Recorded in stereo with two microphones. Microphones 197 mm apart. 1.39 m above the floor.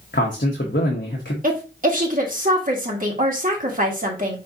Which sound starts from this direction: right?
A woman speaking, at 1.4 s.